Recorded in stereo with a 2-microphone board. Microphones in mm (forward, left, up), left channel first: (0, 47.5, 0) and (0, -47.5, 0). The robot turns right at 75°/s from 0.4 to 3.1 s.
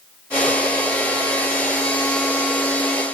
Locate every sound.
Only background noise.